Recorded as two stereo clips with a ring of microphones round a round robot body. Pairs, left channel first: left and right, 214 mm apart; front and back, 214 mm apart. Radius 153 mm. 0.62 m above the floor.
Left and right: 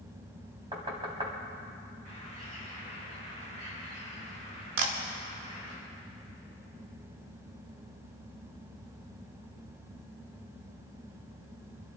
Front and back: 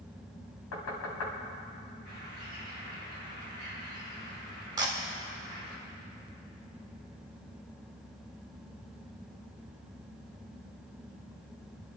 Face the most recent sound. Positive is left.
turn(degrees=-105)